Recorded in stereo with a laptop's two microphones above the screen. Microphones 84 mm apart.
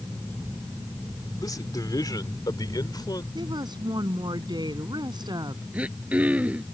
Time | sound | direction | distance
1.4 | a man speaking | 50° left (ahead or behind) | ?
3.4 | a woman speaking | 60° right (ahead or behind) | ?
5.7 | throat clearing | 15° right (ahead or behind) | ?